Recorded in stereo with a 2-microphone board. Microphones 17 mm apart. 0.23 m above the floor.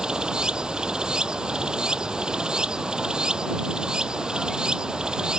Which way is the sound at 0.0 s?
70° right (ahead or behind).